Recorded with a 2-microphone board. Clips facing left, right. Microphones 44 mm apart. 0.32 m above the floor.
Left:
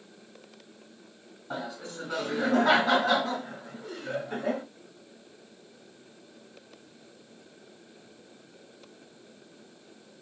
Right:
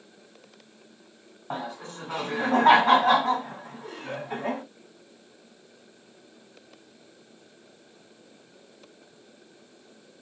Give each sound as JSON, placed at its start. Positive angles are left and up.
{"t": 1.5, "sound": "laughter", "side_deg": -50, "distance_m": 1.9}